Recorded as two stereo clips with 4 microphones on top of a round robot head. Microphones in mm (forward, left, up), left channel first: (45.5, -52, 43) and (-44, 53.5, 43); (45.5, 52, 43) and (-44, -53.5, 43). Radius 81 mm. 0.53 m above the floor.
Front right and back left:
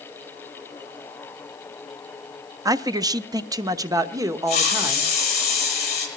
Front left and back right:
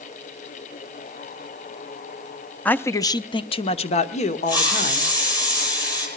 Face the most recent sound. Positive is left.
turn(degrees=-10)